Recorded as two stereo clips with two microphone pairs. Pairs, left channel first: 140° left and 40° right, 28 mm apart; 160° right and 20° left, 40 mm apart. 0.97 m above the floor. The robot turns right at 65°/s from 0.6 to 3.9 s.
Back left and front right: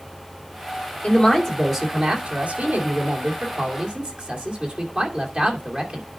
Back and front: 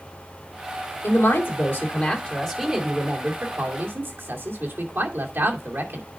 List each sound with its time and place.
1.0 s a man speaking: 175° right, 2.5 m; by 6.1 s 10° left, 2.5 m